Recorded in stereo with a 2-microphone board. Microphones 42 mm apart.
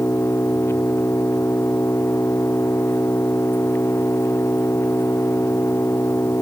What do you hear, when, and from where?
0.0 s an engine running: 75° left (ahead or behind)